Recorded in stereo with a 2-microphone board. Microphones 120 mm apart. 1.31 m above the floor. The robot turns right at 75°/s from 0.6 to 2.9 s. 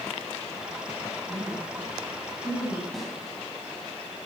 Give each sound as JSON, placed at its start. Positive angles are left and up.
{"t": 1.3, "sound": "a woman speaking", "side_deg": -45, "distance_m": 9.5}
{"t": 2.9, "sound": "a snare drum", "side_deg": 0, "distance_m": 9.5}